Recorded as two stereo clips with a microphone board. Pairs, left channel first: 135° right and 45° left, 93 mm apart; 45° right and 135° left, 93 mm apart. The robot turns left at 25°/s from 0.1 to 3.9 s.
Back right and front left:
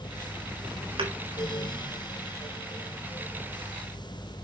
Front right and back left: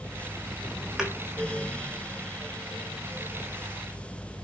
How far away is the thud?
About 2.5 m.